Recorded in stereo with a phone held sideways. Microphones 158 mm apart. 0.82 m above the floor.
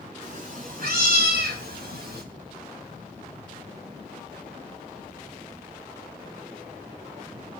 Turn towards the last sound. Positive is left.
turn(degrees=-80)